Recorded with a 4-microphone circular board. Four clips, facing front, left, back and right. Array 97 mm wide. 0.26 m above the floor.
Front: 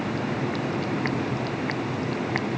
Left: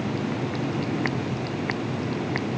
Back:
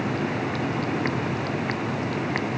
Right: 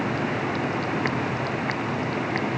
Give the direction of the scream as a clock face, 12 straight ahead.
No scream in this recording.